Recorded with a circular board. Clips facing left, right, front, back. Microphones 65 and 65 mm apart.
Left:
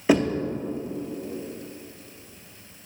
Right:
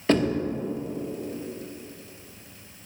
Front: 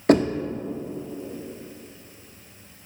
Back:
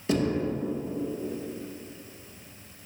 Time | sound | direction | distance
0.1 | knocking | 10° left | 0.8 m